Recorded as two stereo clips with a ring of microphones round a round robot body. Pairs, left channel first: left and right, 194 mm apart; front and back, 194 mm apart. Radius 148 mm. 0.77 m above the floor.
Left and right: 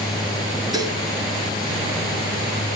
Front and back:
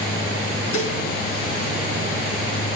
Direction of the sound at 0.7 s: 20° right.